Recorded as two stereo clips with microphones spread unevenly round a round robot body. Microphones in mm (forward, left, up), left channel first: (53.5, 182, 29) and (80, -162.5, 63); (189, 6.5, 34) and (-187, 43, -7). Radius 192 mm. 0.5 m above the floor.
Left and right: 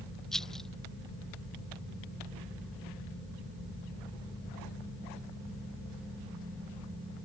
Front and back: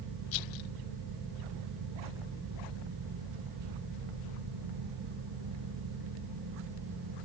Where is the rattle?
5° left.